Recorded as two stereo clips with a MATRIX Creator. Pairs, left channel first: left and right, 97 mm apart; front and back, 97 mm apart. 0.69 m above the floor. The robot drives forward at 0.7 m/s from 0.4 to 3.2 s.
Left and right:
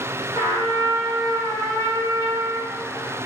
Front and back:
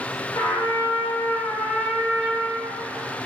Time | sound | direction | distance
0.3 | a trumpet | 45° right | 1.6 m